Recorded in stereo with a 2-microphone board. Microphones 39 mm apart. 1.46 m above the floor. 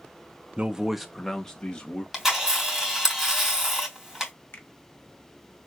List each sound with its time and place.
0.6 s a man speaking: 30° right (ahead or behind), 0.6 m; by 2.0 s 25° left (ahead or behind), 1.6 m
2.1 s a camera shutter: 10° right (ahead or behind), 3 m
4.5 s a finger snap: 65° left (ahead or behind), 1.3 m